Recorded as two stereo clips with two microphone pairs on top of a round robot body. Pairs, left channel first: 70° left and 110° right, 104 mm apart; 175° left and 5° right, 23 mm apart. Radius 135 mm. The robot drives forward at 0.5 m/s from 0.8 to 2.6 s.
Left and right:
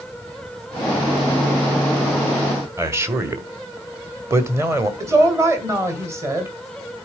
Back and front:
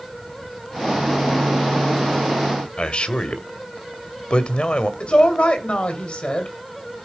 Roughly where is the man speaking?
Behind.